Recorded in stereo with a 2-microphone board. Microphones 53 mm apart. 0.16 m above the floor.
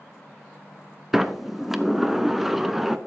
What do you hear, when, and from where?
1.1 s a sliding door: 5° right (ahead or behind), 0.6 m